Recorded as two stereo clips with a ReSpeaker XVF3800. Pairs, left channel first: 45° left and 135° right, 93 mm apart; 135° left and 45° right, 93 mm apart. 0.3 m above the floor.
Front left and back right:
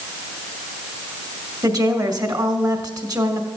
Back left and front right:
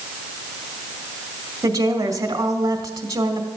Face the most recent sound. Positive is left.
turn(degrees=-95)